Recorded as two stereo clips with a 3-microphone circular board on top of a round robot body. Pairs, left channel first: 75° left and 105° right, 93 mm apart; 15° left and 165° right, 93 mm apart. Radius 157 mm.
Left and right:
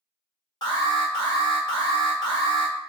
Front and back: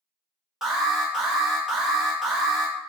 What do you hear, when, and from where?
0.6 s an alarm: 110° left, 1.4 m